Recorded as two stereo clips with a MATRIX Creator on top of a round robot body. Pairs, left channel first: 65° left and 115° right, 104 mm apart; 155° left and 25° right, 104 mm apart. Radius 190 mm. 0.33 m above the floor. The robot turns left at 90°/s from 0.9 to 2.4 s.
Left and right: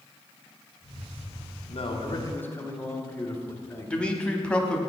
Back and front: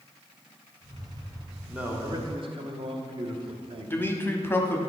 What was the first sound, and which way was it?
A man speaking, 60° left.